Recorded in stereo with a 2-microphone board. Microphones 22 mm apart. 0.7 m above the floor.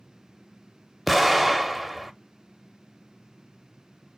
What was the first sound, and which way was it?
An explosion, 5° left (ahead or behind).